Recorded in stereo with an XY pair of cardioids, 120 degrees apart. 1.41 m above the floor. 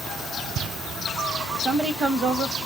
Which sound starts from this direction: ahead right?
A woman speaking, at 1.6 s.